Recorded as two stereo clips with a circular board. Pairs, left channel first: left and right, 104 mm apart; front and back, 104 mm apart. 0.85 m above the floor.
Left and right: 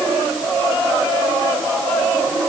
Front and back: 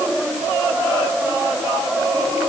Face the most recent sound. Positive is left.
No sound to turn to.